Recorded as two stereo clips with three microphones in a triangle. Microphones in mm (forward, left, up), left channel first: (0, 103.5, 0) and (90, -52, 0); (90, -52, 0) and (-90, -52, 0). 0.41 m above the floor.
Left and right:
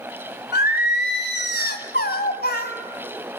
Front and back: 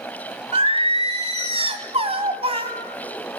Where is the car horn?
I don't hear a car horn.